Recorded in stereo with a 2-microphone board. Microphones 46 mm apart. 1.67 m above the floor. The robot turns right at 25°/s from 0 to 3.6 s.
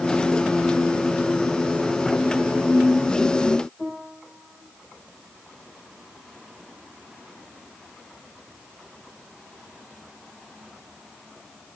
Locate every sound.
3.8 s a piano: 30° left (ahead or behind), 3 m